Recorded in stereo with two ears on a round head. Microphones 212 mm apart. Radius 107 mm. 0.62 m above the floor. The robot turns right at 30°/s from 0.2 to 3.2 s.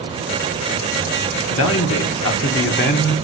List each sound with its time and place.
1.5 s a man speaking: 85° left, 1.2 m; by 3.1 s 135° left, 1.2 m